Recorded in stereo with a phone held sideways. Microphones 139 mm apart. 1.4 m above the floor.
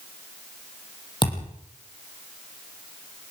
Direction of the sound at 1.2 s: 35° left (ahead or behind).